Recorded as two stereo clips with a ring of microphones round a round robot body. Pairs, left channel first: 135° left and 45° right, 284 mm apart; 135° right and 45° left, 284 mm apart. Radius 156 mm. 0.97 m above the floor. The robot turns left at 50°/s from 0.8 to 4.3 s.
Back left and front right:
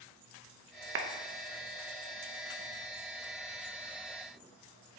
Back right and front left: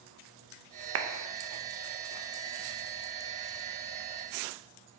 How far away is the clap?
About 0.9 m.